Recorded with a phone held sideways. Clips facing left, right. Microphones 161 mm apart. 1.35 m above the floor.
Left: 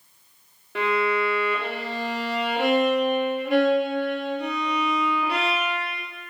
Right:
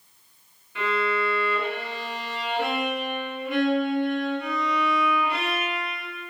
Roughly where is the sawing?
I don't hear sawing.